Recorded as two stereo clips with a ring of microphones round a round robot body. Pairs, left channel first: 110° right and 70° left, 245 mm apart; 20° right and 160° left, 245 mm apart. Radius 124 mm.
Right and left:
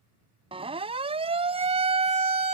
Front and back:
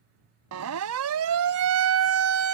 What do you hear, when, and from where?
0.5 s a siren: 135° left; by 2.6 s 130° left